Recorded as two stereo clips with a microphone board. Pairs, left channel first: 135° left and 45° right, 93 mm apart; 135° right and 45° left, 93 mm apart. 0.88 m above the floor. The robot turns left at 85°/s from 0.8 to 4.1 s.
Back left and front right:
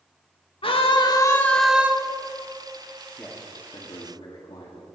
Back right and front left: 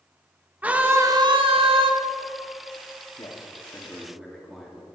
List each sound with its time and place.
0.6 s a scream: 120° left, 1.7 m; by 1.9 s 25° left, 1.7 m
3.2 s a man speaking: 150° right, 2.0 m; by 4.9 s 130° left, 2.0 m